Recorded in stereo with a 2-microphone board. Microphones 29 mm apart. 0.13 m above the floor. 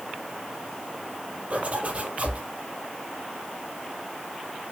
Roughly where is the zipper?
Right.